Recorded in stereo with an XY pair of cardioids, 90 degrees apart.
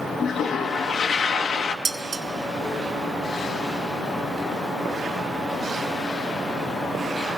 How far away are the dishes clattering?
About 1.6 m.